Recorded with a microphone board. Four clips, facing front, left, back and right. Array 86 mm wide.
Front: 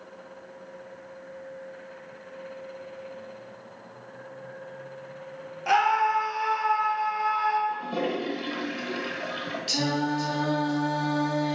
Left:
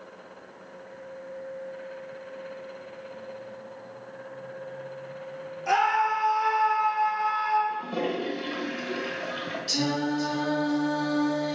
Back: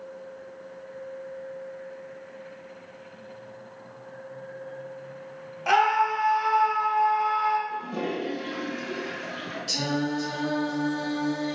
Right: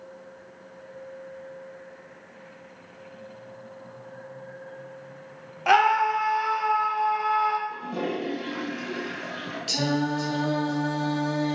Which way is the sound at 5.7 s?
95° right.